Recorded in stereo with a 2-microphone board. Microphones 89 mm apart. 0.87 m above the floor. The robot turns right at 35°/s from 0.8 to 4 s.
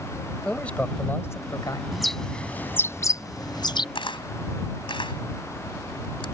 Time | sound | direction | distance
0.5 | a man speaking | 15° left | ?
1.9 | a bird | 5° right (ahead or behind) | ?
4.0 | a camera shutter | 80° left | ?